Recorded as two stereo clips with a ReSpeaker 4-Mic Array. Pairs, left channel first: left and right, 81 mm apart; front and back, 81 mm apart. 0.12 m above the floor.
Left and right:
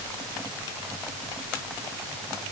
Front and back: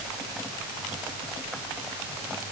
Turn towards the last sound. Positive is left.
No sound to turn to.